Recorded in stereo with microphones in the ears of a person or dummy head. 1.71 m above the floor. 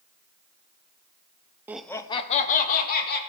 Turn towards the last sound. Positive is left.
turn(degrees=55)  # may be behind; listen again after turning